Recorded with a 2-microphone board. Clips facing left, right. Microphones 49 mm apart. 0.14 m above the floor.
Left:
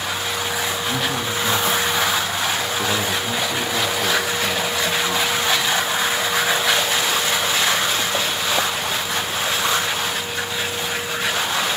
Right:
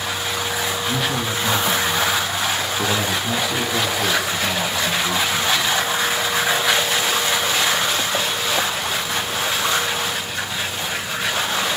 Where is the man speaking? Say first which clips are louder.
Even; 5° right (ahead or behind), 5.5 m.